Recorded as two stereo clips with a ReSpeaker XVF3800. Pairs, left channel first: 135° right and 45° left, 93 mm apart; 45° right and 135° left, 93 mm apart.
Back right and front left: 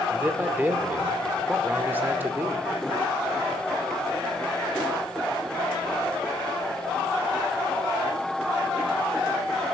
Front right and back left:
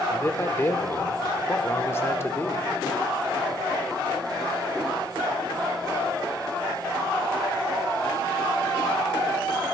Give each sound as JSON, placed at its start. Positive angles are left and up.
{"t": 0.1, "sound": "a man speaking", "azimuth_deg": -5, "distance_m": 0.9}